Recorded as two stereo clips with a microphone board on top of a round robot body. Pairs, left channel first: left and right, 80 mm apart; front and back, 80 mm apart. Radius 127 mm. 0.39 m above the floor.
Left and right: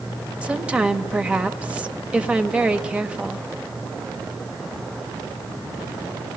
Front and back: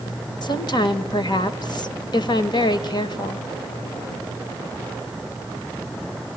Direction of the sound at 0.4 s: 15° right.